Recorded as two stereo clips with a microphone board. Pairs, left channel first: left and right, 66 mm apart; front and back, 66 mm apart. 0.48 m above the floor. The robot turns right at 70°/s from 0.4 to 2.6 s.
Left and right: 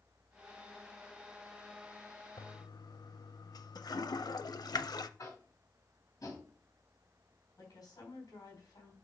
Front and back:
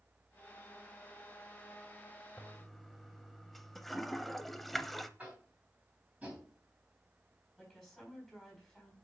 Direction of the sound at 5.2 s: 115° left.